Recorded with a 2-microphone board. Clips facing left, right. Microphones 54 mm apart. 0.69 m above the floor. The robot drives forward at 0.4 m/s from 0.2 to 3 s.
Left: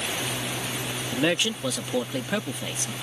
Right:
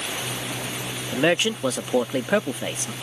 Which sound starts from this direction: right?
A man speaking, at 1.1 s.